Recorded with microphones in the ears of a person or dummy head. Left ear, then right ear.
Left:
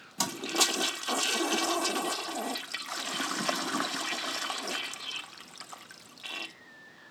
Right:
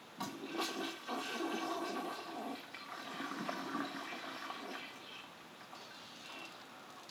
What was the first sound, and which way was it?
A toilet flushing, 85° left.